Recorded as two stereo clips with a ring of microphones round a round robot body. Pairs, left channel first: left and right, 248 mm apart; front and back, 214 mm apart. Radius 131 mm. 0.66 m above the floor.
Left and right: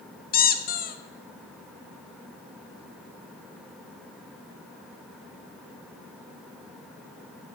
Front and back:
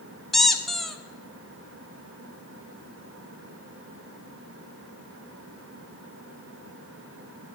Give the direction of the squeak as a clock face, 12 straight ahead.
9 o'clock.